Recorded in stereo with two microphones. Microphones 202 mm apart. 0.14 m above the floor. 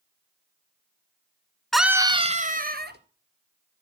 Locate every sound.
1.7 s a scream: centre (ahead or behind), 1.3 m; by 3.0 s 55° right (ahead or behind), 2.5 m